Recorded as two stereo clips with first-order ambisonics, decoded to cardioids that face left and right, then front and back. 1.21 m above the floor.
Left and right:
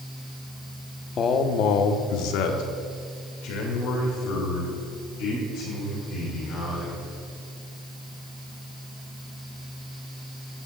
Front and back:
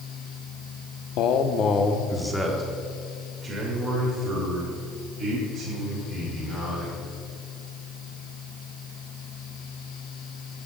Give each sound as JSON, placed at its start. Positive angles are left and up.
{"t": 1.2, "sound": "a man speaking", "azimuth_deg": 30, "distance_m": 0.8}